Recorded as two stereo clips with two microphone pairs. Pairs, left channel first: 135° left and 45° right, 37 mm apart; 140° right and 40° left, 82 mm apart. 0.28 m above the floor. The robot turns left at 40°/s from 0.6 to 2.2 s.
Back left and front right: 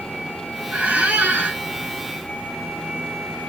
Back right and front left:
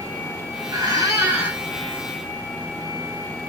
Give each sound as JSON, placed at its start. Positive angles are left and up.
{"t": 0.7, "sound": "a squeak", "azimuth_deg": 5, "distance_m": 1.5}